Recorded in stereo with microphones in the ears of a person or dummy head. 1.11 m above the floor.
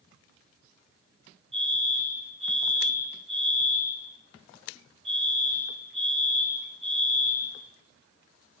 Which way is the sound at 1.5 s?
30° right (ahead or behind).